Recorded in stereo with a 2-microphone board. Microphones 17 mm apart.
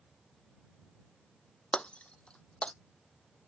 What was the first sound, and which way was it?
Breaking glass, 80° left.